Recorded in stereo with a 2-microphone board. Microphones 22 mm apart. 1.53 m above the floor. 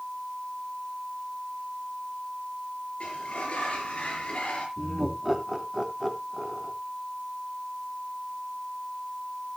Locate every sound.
3.0 s a sliding door: 60° left (ahead or behind), 6 m
4.8 s laughter: 20° right (ahead or behind), 3 m